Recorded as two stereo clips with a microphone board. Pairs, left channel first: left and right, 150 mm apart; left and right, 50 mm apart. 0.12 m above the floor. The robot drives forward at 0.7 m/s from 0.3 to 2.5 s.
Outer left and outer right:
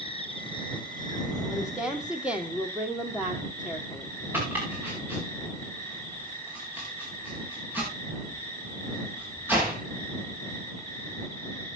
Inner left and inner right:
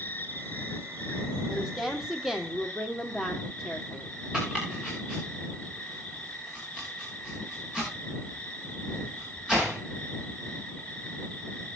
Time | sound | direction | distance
0.0 | an insect | 35° left (ahead or behind) | 1.7 m
1.5 | a woman speaking | 5° right (ahead or behind) | 3.5 m
4.3 | chopping | 10° right (ahead or behind) | 7.5 m